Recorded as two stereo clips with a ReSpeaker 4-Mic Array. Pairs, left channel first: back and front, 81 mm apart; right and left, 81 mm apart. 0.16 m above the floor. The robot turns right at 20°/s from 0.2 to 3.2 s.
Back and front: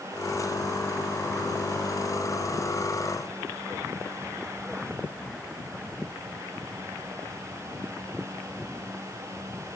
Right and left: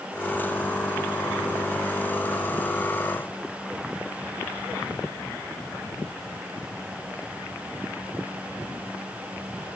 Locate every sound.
Only background noise.